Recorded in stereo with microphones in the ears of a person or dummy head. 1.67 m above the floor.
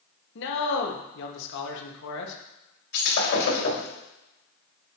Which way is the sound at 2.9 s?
65° left (ahead or behind).